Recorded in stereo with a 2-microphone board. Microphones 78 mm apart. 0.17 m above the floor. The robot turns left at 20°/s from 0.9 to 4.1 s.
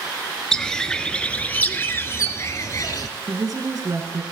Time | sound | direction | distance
0.5 | a bird | 170° left | 0.7 m
3.3 | a woman speaking | 45° right (ahead or behind) | 1.7 m